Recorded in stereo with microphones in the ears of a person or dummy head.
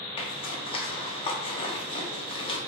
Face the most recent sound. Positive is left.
turn(degrees=25)  # may be behind; listen again after turning